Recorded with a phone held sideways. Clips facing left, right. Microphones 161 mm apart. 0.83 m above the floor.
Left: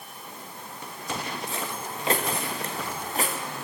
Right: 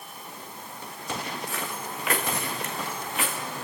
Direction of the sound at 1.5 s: 25° left (ahead or behind).